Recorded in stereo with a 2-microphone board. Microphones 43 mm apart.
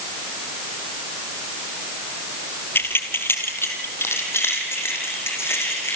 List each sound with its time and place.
2.8 s keys jangling: 55° left (ahead or behind), 2.5 m; by 6.0 s 75° left (ahead or behind), 7 m